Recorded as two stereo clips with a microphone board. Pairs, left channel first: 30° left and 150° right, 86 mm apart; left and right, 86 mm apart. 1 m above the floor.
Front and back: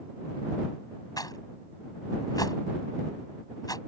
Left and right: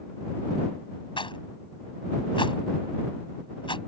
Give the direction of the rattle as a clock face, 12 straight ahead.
10 o'clock.